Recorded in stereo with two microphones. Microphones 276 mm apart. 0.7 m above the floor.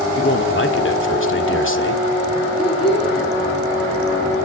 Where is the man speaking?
50° left (ahead or behind), 2 m.